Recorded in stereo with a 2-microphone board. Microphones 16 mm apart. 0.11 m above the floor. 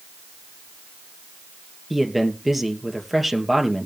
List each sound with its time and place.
1.9 s a man speaking: 5° right (ahead or behind), 2 m